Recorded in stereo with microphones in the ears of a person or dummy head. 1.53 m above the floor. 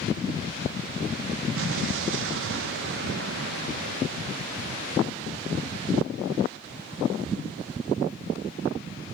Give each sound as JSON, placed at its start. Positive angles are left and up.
{"t": 1.6, "sound": "an explosion", "side_deg": -75, "distance_m": 1.2}